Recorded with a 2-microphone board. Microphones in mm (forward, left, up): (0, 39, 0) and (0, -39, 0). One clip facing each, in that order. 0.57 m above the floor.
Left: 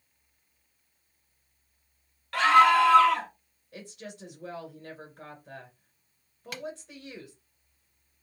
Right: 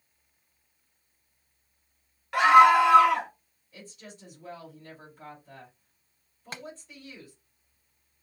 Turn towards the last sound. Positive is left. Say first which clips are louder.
# left 1 dB
turn(degrees=-30)  # may be behind; listen again after turning